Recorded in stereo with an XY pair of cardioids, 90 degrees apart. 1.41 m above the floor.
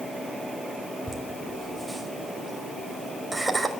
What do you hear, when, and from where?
1.1 s laughter: 10° right, 5.5 m